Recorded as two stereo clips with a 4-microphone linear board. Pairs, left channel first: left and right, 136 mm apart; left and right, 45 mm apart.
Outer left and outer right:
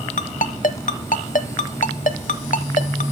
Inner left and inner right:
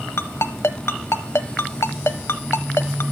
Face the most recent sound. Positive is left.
turn(degrees=80)